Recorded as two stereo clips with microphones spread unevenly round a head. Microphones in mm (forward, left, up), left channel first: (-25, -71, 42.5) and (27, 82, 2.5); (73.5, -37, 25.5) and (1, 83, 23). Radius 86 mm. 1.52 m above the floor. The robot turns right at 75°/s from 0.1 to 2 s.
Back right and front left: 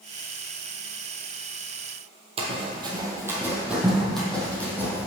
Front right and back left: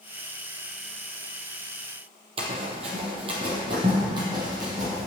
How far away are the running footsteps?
About 1.8 m.